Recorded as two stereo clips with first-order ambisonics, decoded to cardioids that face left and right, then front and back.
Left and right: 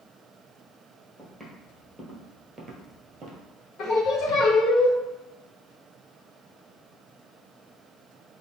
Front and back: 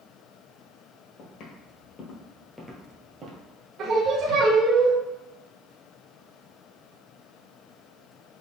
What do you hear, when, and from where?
1.2 s footsteps: straight ahead, 1.5 m; by 3.4 s 140° right, 1.3 m
3.8 s singing: 135° left, 1.2 m